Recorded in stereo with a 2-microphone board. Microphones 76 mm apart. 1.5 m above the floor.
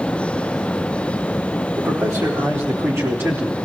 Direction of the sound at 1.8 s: 45° right (ahead or behind).